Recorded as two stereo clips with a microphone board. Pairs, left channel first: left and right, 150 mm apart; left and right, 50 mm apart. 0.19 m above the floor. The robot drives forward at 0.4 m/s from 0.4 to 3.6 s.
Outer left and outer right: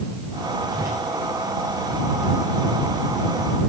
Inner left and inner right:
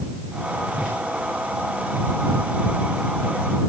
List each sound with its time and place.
0.7 s a whoosh: 20° right (ahead or behind), 10 m